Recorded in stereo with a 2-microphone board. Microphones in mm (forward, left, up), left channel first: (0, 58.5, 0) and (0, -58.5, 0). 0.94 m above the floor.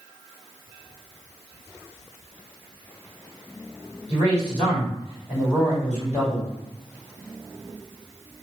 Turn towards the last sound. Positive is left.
turn(degrees=65)  # may be behind; listen again after turning